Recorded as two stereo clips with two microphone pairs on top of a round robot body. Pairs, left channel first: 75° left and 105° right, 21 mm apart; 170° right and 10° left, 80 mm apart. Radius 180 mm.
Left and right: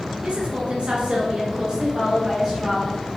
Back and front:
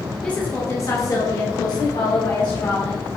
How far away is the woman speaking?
About 1.4 m.